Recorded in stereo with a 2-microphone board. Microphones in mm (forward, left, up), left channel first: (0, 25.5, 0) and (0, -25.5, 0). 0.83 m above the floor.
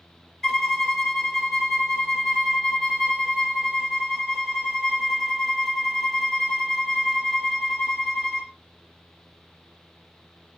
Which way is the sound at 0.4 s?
10° left (ahead or behind).